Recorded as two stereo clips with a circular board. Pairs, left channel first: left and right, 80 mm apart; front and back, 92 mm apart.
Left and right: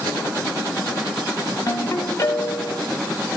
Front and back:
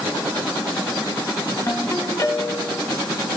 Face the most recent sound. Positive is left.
turn(degrees=50)